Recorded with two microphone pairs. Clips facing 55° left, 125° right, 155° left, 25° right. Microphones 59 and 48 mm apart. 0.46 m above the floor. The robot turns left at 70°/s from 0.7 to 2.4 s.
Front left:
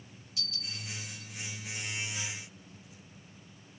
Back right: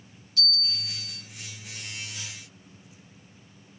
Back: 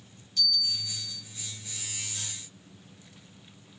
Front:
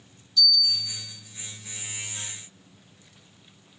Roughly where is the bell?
Behind.